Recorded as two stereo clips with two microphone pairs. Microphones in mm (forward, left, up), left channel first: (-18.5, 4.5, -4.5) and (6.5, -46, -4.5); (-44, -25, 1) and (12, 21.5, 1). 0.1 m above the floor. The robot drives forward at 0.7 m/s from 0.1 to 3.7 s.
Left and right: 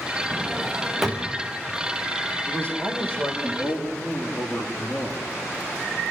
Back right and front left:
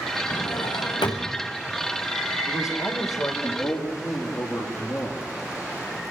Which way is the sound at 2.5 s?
Straight behind.